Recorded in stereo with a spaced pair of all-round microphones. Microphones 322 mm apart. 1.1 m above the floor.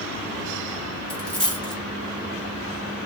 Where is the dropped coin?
Centre (ahead or behind), 1.5 m.